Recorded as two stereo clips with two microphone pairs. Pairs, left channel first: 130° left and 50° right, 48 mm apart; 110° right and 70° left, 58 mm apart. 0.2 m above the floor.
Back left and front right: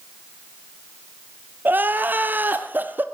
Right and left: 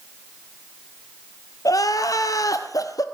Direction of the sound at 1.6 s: 100° right.